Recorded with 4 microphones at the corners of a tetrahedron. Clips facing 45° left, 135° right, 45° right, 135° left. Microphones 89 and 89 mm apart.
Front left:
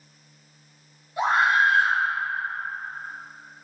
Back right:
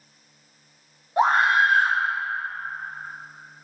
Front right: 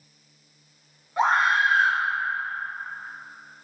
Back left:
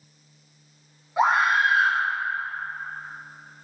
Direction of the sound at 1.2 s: 145° right.